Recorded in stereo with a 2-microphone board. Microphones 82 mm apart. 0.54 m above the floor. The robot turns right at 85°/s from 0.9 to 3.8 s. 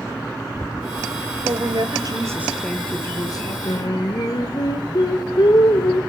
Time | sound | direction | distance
1.4 | a woman speaking | 105° right | 2.5 m
3.6 | singing | 60° left (ahead or behind) | 2.0 m